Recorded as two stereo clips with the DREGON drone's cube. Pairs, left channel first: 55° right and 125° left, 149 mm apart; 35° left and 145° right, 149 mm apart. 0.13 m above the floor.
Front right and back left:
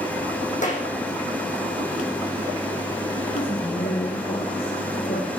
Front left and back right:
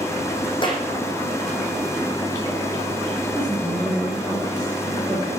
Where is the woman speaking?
50° right, 5 m.